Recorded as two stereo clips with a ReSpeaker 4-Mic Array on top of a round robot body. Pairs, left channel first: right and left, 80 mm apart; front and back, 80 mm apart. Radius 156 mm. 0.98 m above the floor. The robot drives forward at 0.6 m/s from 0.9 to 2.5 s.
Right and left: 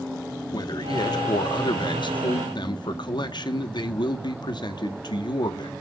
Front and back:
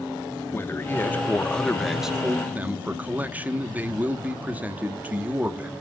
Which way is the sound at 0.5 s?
60° right.